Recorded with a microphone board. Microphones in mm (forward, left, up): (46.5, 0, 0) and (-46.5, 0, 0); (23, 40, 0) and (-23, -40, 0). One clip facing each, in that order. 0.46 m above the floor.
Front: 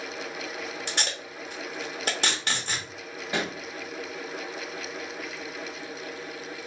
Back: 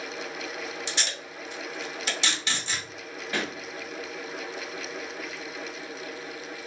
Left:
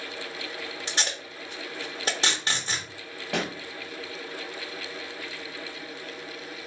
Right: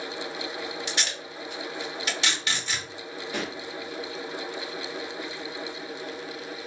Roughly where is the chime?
No chime in this recording.